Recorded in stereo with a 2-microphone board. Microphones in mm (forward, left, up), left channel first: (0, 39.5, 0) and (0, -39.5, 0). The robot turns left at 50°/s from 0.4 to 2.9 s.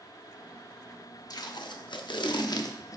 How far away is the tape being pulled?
About 0.6 m.